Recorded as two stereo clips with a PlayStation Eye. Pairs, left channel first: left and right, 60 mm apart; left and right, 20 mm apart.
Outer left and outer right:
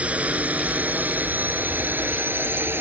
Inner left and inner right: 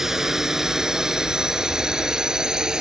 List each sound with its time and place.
0.0 s a drone: 20° right (ahead or behind); by 2.8 s 35° right (ahead or behind)